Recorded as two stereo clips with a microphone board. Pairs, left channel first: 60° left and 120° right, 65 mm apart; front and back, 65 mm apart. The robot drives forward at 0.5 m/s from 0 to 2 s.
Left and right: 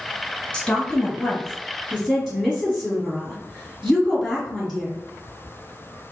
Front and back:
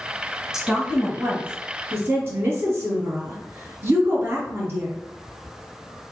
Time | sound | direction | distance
0.5 | a woman speaking | 110° left | 1.2 m